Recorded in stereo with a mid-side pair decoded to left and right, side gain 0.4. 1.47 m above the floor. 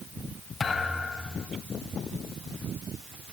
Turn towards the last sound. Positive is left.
turn(degrees=45)